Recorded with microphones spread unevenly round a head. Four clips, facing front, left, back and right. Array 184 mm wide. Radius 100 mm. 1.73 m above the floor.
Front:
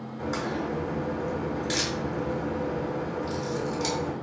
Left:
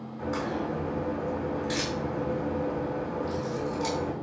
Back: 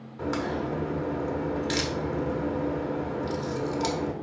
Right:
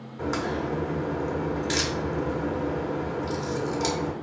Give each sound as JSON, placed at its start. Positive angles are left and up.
{"t": 0.2, "sound": "a crack", "azimuth_deg": -125, "distance_m": 0.8}